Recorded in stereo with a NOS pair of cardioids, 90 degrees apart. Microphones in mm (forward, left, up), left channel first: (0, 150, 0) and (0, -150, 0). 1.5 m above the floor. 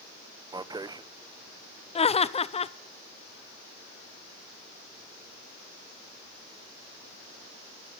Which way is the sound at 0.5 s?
15° right.